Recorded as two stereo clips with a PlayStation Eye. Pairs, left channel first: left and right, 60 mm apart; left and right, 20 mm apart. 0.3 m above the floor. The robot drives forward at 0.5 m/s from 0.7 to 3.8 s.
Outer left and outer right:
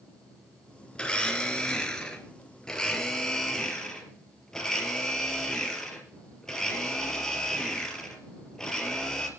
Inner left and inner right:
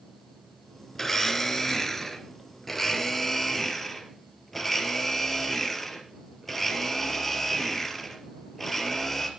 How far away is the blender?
About 2.0 m.